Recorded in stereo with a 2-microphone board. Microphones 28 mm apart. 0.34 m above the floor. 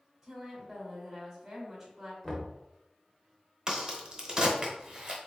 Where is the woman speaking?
Centre (ahead or behind), 1.6 m.